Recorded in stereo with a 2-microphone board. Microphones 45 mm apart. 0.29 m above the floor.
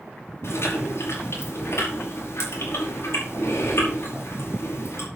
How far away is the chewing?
About 6 m.